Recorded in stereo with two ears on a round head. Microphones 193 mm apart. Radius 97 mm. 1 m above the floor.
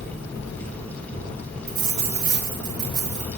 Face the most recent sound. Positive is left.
turn(degrees=-70)  # may be behind; listen again after turning